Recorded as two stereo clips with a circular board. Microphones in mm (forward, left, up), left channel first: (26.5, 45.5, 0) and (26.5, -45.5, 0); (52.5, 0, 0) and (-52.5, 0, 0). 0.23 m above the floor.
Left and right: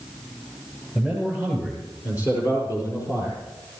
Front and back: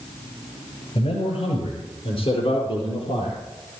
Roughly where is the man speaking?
Ahead.